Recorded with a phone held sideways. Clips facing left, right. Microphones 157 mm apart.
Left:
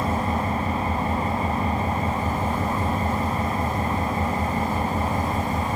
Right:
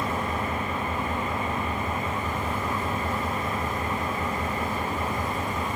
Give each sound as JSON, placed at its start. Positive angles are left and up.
{"t": 0.0, "sound": "an engine running", "side_deg": 35, "distance_m": 3.0}